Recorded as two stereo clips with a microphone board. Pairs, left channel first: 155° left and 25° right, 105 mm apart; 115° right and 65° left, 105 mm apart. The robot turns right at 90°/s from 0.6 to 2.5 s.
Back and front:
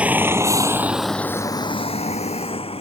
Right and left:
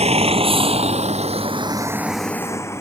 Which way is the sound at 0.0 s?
55° left.